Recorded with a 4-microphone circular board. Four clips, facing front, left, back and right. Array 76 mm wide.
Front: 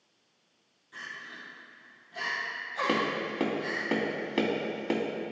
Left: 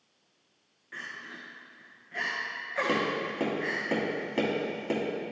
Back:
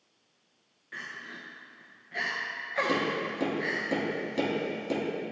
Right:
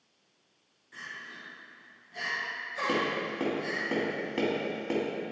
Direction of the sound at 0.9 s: 145° left.